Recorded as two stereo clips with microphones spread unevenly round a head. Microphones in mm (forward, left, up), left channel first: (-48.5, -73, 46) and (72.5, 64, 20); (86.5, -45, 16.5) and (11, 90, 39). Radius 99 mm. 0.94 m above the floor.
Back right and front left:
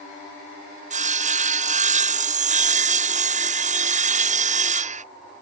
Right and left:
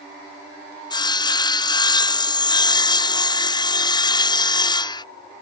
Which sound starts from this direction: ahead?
Sawing, at 0.9 s.